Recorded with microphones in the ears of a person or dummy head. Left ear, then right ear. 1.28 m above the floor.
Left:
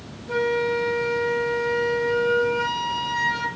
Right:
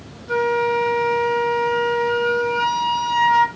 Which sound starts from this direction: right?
A flute, at 0.3 s.